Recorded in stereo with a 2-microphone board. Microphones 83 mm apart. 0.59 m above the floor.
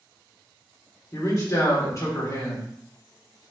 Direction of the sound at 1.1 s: 40° left (ahead or behind).